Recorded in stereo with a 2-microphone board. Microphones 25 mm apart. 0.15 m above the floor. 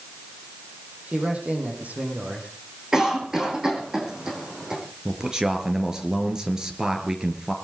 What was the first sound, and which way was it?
A man speaking, 70° right (ahead or behind).